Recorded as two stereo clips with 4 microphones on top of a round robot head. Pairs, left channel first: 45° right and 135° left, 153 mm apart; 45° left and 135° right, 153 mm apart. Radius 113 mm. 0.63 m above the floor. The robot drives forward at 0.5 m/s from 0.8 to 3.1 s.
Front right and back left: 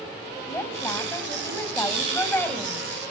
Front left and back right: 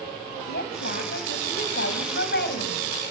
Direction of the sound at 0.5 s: 30° left.